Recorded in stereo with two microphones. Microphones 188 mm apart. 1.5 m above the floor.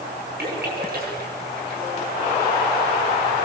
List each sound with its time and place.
0.4 s a splash: 60° right (ahead or behind), 7 m